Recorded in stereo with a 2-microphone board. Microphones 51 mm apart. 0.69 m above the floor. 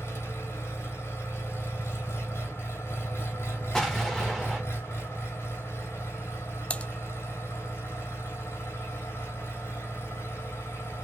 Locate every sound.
0.0 s an engine running: 50° left (ahead or behind), 2.5 m
3.7 s an explosion: 5° left (ahead or behind), 2 m
6.7 s typing on a keyboard: 25° left (ahead or behind), 0.5 m